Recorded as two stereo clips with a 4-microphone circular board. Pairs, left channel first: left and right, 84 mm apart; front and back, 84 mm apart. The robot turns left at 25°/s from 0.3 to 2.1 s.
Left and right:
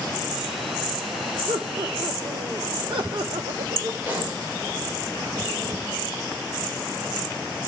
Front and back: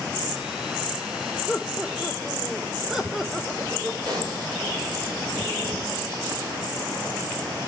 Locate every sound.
1.5 s laughter: 80° right, 1.0 m; by 3.9 s 95° right, 1.0 m
4.0 s a pop: 155° right, 5.5 m